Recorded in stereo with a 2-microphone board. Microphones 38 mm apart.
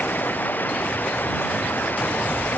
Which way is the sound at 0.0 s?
55° left (ahead or behind).